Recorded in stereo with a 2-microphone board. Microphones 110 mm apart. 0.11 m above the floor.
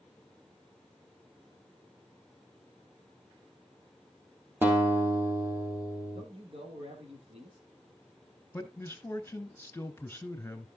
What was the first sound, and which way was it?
A guitar, 20° right (ahead or behind).